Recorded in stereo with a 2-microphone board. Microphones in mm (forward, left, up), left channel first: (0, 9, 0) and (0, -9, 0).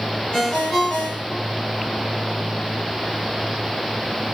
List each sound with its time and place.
0.3 s a ringtone: 85° left, 2 m